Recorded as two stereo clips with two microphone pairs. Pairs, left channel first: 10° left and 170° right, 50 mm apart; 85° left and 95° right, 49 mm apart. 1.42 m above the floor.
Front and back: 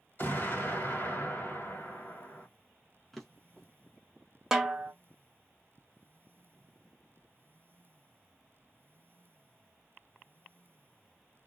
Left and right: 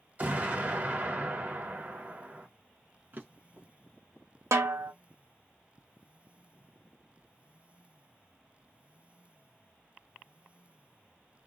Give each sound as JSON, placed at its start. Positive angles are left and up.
{"t": 0.2, "sound": "an explosion", "azimuth_deg": -35, "distance_m": 1.3}
{"t": 3.1, "sound": "a drawer", "azimuth_deg": -70, "distance_m": 0.6}
{"t": 4.5, "sound": "a snare drum", "azimuth_deg": -90, "distance_m": 0.6}